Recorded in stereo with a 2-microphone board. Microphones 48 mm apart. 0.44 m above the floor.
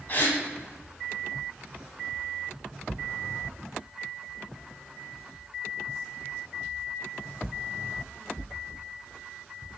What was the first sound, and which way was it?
A gasp, 40° left (ahead or behind).